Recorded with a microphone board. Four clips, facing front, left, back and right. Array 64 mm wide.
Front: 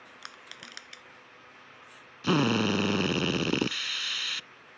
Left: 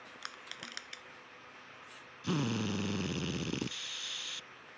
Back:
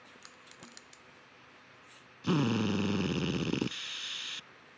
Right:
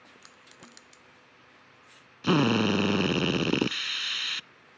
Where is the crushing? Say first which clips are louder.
Left 5 dB, front 7 dB; 45° left.